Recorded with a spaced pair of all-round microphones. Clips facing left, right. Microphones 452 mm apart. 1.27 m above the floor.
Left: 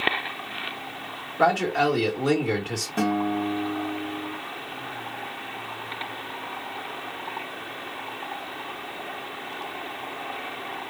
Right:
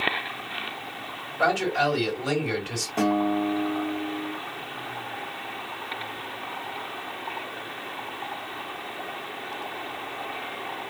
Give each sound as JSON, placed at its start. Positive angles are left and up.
{"t": 1.4, "sound": "a man speaking", "side_deg": 70, "distance_m": 2.0}
{"t": 3.0, "sound": "a guitar", "side_deg": 30, "distance_m": 1.9}